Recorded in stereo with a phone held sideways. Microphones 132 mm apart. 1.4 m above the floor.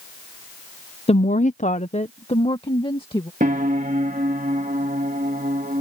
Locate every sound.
1.1 s a woman speaking: 50° left (ahead or behind); by 3.3 s 40° left (ahead or behind)
3.4 s a piano: 75° right (ahead or behind)